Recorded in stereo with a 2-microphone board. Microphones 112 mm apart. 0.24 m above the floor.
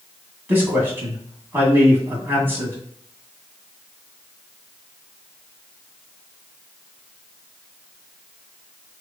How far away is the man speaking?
About 2.0 m.